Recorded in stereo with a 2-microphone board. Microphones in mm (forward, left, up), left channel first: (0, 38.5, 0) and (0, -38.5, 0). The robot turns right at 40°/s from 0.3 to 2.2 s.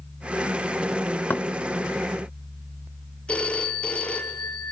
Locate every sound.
1.3 s knocking: 20° left (ahead or behind), 0.7 m
3.3 s a phone ringing: 15° left (ahead or behind), 2.5 m